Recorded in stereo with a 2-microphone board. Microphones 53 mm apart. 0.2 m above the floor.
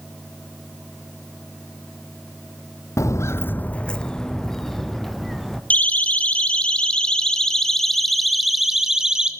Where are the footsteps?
75° left (ahead or behind), 0.5 m; by 5.6 s 5° left (ahead or behind), 3 m.